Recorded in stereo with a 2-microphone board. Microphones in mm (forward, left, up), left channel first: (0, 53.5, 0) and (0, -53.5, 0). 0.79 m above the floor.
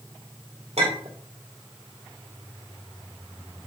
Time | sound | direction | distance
0.8 | a clink | 80° right | 2 m